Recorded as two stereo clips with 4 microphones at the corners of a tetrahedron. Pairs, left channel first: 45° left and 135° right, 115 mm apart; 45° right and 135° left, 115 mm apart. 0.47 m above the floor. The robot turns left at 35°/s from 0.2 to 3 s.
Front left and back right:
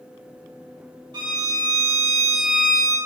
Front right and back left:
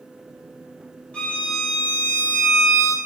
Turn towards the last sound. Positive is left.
turn(degrees=175)